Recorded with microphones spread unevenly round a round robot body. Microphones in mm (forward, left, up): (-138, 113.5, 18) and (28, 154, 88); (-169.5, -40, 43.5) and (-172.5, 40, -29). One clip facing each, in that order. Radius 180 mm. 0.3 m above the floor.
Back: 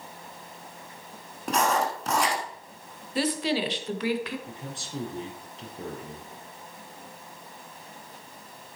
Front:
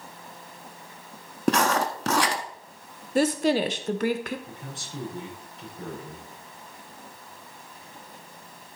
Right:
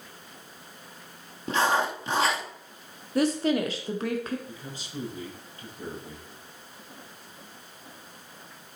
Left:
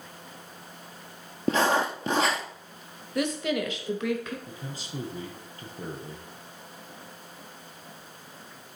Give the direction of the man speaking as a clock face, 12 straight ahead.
8 o'clock.